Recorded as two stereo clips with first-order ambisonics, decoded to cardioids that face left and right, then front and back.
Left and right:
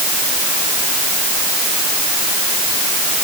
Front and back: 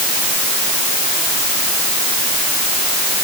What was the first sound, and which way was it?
Only background noise.